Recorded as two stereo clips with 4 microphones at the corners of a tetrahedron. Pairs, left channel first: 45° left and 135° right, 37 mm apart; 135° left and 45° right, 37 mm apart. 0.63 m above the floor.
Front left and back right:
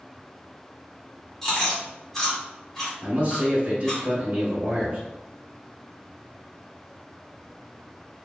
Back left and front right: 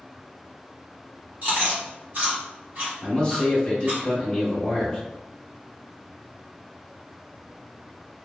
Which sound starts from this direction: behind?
A man speaking, at 3.0 s.